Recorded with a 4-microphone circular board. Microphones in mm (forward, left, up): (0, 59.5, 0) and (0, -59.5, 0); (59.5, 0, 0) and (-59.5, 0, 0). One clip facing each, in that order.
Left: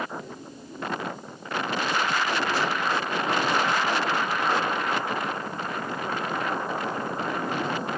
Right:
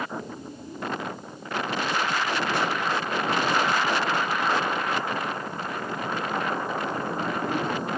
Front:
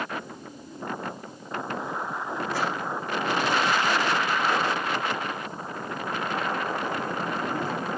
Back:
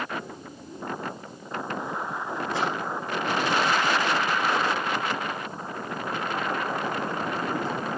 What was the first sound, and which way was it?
A drawer, 115° right.